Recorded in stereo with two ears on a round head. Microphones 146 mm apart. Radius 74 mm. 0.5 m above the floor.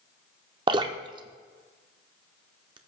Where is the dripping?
25° right (ahead or behind), 0.8 m.